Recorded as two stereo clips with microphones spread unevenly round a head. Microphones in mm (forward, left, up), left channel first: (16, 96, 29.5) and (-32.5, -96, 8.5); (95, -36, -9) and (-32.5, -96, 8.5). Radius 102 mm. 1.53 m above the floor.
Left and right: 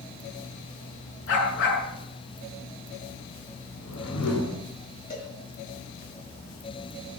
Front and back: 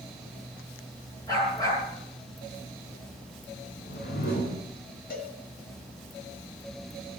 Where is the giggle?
I don't hear a giggle.